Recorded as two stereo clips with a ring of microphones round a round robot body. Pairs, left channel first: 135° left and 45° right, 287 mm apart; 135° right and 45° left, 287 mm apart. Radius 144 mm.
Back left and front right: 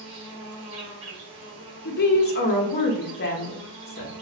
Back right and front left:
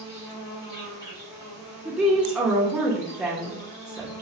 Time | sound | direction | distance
0.0 | an insect | 60° right | 1.9 m
1.9 | a woman speaking | 130° left | 0.5 m